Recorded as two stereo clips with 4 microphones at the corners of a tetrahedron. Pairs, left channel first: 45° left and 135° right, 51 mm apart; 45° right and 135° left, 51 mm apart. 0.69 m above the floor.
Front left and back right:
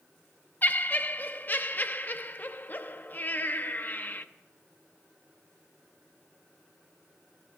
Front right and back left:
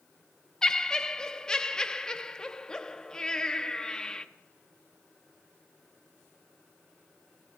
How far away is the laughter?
About 0.7 m.